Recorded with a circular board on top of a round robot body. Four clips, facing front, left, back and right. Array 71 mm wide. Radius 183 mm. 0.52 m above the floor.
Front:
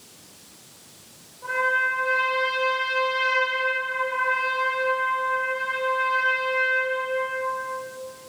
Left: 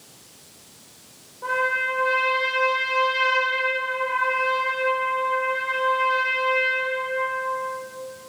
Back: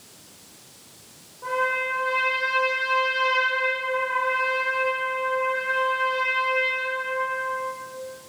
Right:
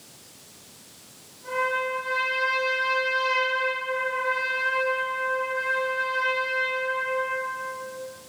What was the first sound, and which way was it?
A trumpet, 105° left.